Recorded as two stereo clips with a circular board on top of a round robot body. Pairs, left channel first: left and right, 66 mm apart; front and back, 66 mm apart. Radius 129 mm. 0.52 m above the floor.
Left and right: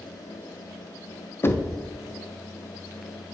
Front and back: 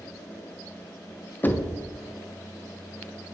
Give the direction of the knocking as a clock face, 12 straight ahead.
10 o'clock.